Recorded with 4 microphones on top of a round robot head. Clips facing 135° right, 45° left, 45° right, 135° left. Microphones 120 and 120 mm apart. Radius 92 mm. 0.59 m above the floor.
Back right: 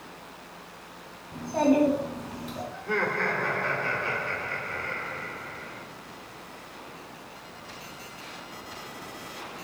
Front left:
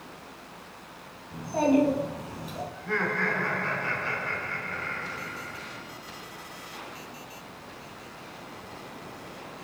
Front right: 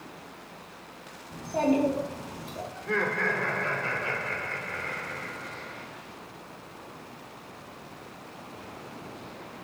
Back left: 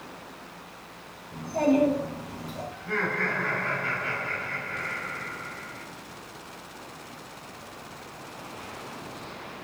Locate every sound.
1.3 s a child speaking: 40° right, 3 m
2.7 s laughter: 65° right, 2.0 m